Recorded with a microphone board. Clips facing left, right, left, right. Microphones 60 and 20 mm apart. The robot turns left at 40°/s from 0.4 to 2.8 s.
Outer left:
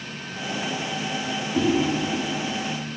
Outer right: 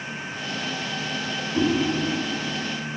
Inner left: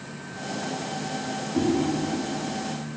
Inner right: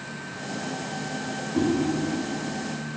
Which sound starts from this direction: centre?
A whoosh, at 1.5 s.